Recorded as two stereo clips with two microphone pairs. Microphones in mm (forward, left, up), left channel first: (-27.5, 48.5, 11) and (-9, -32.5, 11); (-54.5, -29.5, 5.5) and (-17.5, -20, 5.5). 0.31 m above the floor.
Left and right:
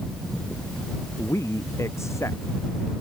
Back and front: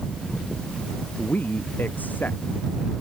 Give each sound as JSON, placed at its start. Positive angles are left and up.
{"t": 1.2, "sound": "a man speaking", "azimuth_deg": 160}